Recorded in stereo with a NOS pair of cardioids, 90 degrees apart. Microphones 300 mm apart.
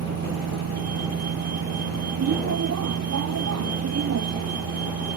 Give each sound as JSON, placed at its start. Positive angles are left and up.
{"t": 0.0, "sound": "a vehicle", "azimuth_deg": -60}